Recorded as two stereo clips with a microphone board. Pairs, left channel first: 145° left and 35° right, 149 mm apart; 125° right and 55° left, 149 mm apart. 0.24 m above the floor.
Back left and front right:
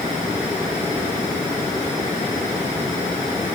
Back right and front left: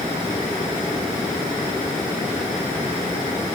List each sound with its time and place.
Only background noise.